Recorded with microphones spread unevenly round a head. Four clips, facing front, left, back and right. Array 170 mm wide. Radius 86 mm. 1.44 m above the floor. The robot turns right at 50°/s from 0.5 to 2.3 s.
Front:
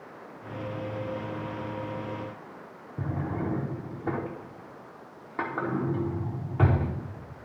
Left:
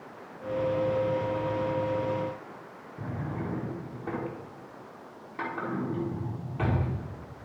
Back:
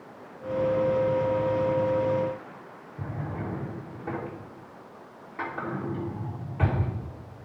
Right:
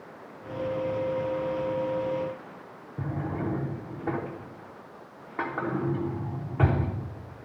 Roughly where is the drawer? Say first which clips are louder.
Right 4 dB, front 3 dB; ahead right.